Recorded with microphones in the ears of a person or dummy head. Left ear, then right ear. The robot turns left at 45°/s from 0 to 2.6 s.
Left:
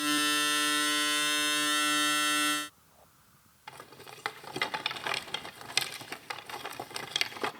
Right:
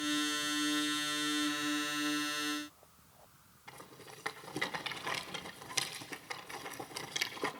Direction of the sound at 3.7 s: 20° left (ahead or behind).